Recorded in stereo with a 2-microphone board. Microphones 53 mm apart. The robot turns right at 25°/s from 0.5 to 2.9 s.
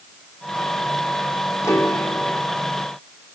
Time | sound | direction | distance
1.6 | a piano | 70° left (ahead or behind) | 1.8 m